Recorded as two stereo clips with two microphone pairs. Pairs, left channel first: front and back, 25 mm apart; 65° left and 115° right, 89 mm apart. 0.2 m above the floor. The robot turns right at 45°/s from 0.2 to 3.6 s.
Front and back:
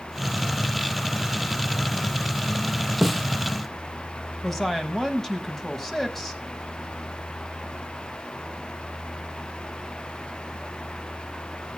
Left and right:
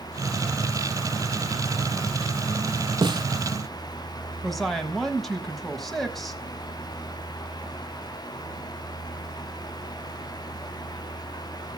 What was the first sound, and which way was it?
A snare drum, 90° right.